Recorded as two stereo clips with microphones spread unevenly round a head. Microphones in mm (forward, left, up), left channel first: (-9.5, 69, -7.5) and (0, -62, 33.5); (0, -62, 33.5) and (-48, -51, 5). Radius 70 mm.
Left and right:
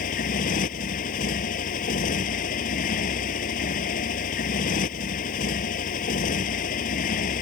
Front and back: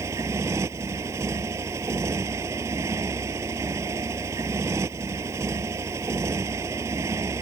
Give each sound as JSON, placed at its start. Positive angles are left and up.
{"t": 0.0, "sound": "a motorcycle", "azimuth_deg": 120}